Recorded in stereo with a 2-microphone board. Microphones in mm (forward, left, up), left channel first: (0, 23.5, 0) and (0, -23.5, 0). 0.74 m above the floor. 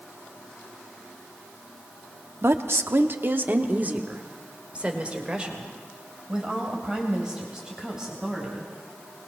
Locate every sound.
2.4 s a woman speaking: 65° right (ahead or behind), 1.1 m; by 8.7 s 10° right (ahead or behind), 5 m